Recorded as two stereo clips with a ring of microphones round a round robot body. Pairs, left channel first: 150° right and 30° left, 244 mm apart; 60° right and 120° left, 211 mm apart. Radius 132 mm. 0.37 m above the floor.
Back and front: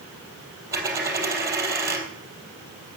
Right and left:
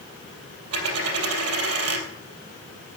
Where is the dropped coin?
110° left, 3 m.